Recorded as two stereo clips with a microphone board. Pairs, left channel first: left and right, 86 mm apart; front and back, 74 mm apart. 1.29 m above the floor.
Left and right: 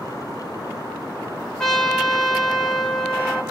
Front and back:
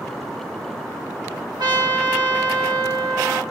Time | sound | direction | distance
1.6 | a trumpet | 175° left | 1.9 m